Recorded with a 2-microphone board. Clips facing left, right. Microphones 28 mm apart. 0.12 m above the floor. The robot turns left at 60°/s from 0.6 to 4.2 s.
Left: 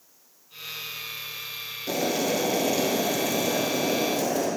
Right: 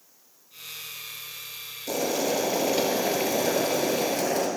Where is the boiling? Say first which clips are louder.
Even; 30° left, 2 m; by 4.5 s 110° right, 2 m.